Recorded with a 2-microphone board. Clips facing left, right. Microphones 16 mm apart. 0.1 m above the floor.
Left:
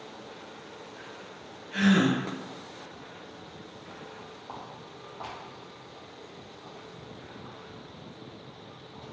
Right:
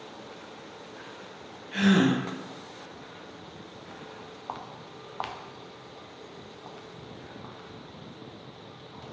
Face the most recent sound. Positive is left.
turn(degrees=-70)  # may be behind; listen again after turning